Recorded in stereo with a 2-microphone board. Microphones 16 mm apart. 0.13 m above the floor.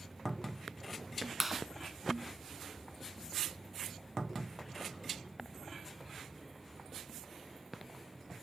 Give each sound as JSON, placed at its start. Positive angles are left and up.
{"t": 1.4, "sound": "a clap", "side_deg": -10, "distance_m": 0.9}